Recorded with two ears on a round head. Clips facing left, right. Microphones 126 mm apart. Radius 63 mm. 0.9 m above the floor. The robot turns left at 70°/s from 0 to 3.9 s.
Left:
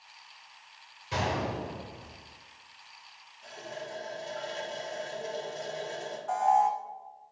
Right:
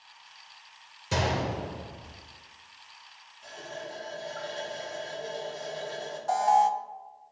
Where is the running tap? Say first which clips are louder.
Right 1 dB; straight behind, 1.9 m; by 6.2 s 150° left, 1.9 m.